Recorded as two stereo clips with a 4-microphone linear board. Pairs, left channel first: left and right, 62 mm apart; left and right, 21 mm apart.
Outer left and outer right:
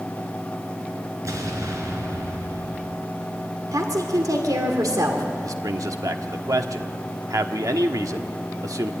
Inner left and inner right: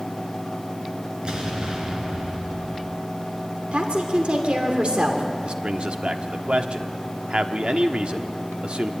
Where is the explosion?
55° right (ahead or behind), 4.5 m.